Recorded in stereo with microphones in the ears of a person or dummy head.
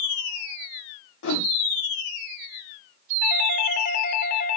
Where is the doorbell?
45° left (ahead or behind), 0.8 m.